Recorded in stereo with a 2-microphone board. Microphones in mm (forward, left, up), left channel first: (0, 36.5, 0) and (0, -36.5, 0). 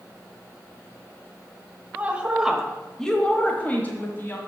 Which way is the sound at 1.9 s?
20° right (ahead or behind).